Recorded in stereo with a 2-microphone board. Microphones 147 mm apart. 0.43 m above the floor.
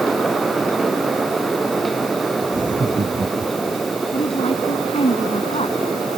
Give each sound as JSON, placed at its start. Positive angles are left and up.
{"t": 2.5, "sound": "laughter", "side_deg": -60}
{"t": 4.1, "sound": "a woman speaking", "side_deg": 40}